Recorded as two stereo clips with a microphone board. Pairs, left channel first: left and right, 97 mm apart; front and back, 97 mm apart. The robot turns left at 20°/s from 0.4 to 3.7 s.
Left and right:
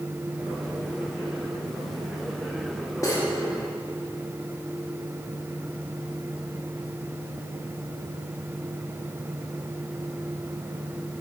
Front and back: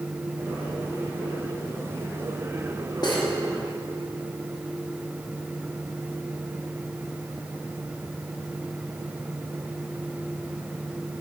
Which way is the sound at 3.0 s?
40° left.